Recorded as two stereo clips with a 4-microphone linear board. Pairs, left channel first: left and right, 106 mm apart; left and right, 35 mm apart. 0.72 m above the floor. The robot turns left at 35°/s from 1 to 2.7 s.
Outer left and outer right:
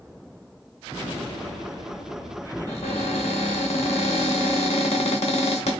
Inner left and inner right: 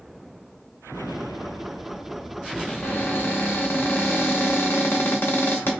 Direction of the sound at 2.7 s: 85° left.